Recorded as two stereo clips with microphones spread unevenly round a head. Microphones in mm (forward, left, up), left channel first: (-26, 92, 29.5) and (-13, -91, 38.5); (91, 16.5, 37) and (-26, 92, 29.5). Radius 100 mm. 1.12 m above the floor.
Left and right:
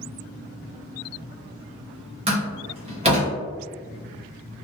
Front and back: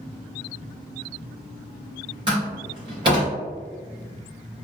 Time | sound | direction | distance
2.3 | a door slam | 145° right | 1.0 m